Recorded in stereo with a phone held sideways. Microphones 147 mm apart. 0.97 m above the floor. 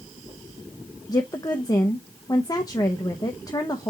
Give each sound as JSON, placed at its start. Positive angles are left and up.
{"t": 1.1, "sound": "a woman speaking", "side_deg": 25, "distance_m": 0.6}